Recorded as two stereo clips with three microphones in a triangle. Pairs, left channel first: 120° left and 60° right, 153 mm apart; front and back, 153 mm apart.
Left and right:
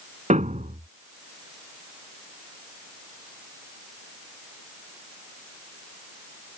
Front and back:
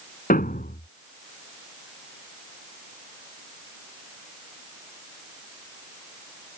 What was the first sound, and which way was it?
A thud, 20° right.